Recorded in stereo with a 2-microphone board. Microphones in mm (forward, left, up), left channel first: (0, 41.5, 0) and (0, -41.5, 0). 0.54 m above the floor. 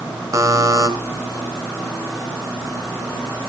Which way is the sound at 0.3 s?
40° right (ahead or behind).